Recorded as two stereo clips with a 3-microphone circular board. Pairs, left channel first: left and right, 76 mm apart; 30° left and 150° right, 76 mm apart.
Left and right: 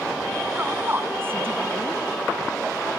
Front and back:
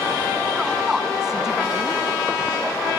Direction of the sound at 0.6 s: 75° right.